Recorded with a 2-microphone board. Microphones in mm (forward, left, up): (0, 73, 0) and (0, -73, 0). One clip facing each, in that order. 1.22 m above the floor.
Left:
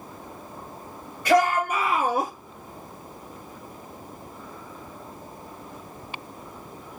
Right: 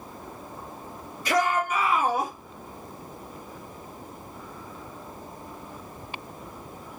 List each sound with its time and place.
1.2 s a shout: 70° left (ahead or behind), 2.5 m; by 2.3 s 80° left, 1.9 m